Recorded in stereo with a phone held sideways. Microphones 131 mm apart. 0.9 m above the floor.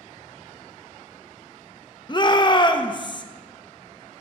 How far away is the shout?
About 0.6 m.